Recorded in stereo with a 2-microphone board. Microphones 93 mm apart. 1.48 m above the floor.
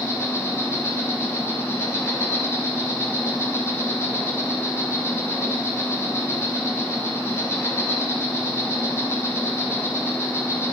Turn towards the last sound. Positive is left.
turn(degrees=30)  # may be behind; listen again after turning